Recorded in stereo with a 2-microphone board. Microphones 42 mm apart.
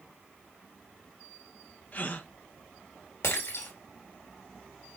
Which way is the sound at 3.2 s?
80° left.